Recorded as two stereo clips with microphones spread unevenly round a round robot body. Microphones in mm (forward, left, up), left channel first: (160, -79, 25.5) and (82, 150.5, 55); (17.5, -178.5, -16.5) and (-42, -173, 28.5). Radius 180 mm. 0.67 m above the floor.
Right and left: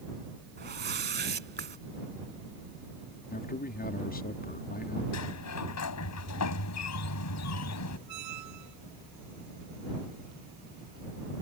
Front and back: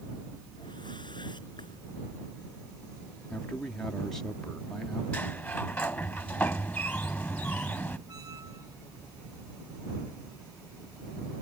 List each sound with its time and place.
0.6 s a whoosh: 65° left
3.3 s a man speaking: 40° right
5.1 s a sliding door: 75° right
8.1 s a squeak: 130° left